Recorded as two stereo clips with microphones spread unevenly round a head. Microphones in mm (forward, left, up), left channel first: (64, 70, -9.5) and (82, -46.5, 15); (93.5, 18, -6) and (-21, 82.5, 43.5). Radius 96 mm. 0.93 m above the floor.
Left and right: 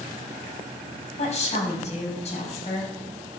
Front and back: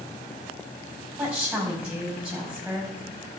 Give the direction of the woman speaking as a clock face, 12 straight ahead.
10 o'clock.